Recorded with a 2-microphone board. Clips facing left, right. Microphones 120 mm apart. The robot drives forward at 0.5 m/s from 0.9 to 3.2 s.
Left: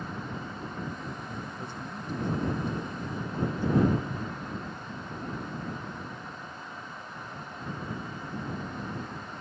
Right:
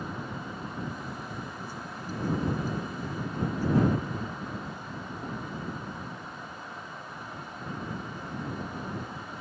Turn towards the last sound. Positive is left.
turn(degrees=25)  # may be behind; listen again after turning